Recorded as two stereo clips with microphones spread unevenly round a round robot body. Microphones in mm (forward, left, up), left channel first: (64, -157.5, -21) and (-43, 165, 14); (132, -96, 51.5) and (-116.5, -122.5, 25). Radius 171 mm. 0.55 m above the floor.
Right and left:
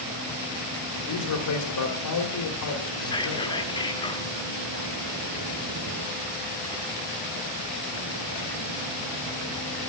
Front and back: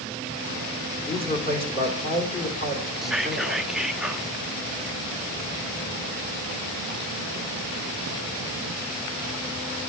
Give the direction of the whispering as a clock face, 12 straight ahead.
3 o'clock.